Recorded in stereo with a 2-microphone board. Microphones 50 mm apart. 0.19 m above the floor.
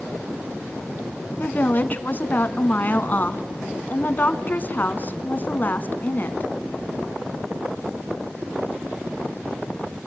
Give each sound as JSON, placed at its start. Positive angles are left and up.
{"t": 1.4, "sound": "a woman speaking", "side_deg": 35, "distance_m": 1.6}